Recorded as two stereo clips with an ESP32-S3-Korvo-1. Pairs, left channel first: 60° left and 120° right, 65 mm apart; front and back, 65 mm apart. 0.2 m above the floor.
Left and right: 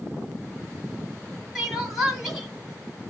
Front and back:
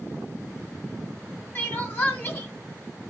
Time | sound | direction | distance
1.6 | crying | 30° right | 1.7 m